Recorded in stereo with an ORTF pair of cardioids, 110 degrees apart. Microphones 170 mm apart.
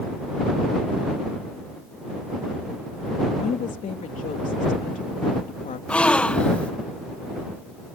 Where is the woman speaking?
50° left.